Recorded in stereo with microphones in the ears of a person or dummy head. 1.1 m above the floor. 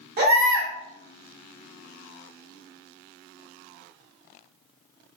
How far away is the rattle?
I don't hear a rattle.